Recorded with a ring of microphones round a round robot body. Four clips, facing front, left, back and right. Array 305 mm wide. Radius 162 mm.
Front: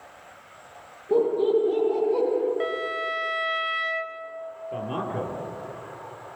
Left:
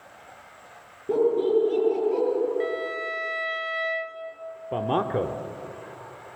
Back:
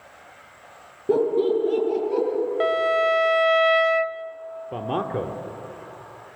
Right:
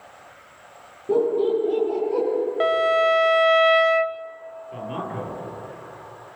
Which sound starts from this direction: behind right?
A violin, at 2.6 s.